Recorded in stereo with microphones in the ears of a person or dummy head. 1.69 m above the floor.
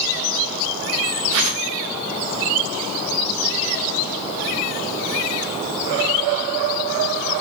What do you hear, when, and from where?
1.3 s a whoosh: 75° right (ahead or behind), 1.0 m